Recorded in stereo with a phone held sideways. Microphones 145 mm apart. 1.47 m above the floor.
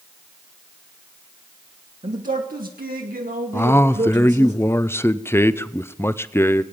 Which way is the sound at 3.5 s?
15° left (ahead or behind).